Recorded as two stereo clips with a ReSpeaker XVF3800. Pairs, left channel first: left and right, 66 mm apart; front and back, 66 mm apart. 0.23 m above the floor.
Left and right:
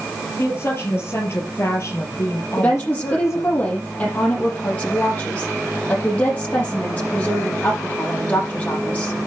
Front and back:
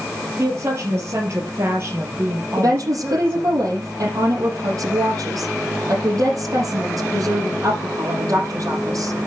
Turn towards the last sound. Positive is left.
turn(degrees=155)